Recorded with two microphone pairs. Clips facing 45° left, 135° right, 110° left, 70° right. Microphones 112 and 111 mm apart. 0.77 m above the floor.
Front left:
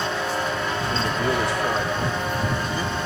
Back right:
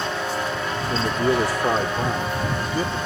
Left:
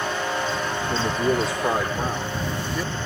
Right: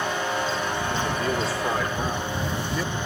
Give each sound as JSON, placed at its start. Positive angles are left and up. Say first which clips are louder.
{"t": 0.9, "sound": "a man speaking", "louder": "back right 4 dB, left 6 dB", "azimuth_deg": 170}